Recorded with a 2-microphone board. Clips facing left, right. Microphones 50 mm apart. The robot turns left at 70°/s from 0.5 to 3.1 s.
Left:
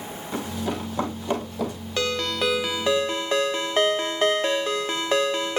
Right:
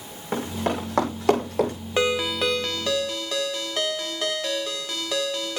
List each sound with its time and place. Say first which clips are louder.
0.3 s running footsteps: right 3 dB; 45° right (ahead or behind), 6 m; by 1.7 s 50° right (ahead or behind), 6.5 m
2.0 s a ringtone: right 2 dB; 145° right, 0.5 m; by 5.6 s 135° left, 0.5 m